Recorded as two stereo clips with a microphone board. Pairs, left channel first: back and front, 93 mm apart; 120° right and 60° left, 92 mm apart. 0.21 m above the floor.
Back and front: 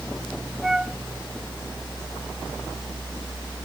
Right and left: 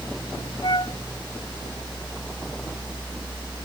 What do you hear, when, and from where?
0.6 s a flute: 85° right